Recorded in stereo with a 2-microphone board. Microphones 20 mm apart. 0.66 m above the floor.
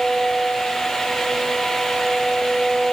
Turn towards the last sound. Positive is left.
No sound to turn to.